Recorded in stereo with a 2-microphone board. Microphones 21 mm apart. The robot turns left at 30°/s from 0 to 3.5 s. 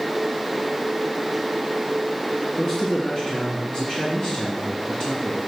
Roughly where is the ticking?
I don't hear ticking.